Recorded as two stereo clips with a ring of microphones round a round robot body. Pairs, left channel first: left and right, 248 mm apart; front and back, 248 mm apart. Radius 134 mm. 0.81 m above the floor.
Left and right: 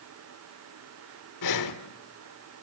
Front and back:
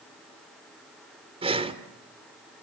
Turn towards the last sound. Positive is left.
turn(degrees=110)